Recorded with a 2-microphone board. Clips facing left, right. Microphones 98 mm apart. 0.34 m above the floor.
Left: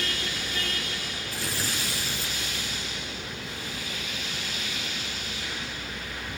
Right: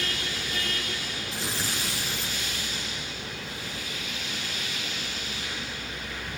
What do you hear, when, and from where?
1.3 s tearing paper: 20° right (ahead or behind), 4 m